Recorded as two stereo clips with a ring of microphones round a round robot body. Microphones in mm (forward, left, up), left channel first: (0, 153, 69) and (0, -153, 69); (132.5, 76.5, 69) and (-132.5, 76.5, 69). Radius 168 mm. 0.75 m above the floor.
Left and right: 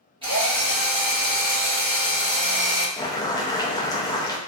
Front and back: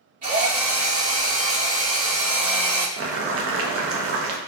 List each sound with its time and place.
0.2 s a drill: 150° right, 1.3 m
3.0 s boiling: 165° left, 0.5 m